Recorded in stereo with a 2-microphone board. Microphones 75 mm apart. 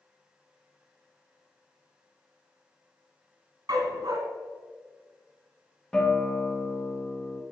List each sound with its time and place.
3.7 s a dog barking: 70° right (ahead or behind), 1.4 m
5.9 s a guitar: 10° left (ahead or behind), 1.3 m